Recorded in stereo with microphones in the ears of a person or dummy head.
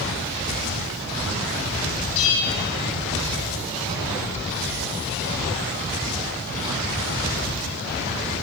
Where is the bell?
70° left (ahead or behind), 4 m.